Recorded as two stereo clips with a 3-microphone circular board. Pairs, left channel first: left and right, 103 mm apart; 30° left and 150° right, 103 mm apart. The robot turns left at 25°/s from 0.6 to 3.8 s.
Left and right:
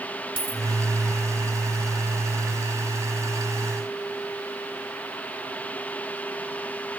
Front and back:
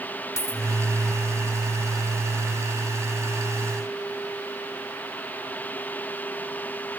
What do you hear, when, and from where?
0.4 s a dropped coin: 90° left, 2 m